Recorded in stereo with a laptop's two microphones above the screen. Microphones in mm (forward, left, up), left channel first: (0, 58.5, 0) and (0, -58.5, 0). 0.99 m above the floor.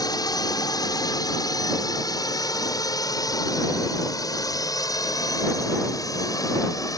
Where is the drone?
35° left (ahead or behind).